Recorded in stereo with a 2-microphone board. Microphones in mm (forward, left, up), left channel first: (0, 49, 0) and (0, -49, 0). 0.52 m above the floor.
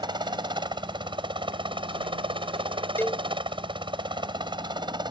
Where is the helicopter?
50° right (ahead or behind).